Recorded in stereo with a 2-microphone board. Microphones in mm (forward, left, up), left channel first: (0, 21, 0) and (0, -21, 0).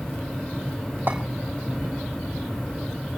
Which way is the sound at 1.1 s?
45° right (ahead or behind).